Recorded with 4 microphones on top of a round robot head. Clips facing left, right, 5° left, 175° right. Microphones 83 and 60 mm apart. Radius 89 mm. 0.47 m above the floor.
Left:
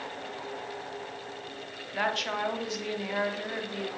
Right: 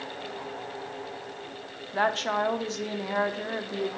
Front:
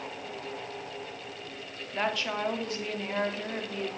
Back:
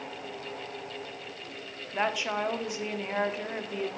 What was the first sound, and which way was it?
A woman speaking, 110° right.